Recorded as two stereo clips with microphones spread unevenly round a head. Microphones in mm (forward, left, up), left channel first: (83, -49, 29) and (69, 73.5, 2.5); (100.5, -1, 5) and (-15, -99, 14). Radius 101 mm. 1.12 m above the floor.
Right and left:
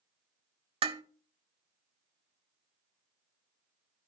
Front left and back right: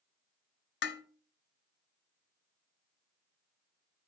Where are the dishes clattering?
45° left, 0.8 m.